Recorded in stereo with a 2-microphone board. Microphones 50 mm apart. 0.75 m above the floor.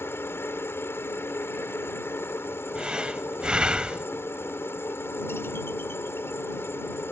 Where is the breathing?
20° right (ahead or behind).